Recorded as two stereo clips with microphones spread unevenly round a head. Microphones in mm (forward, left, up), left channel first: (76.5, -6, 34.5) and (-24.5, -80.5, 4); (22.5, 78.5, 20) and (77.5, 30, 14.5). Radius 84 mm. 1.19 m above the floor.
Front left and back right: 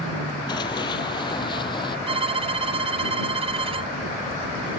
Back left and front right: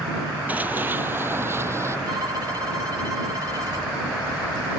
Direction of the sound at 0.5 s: 20° left.